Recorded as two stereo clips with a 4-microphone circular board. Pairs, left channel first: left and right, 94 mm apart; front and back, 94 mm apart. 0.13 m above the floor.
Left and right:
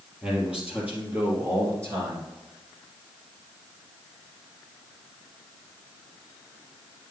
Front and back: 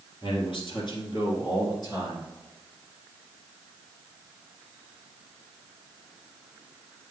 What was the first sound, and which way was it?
A man speaking, 10° right.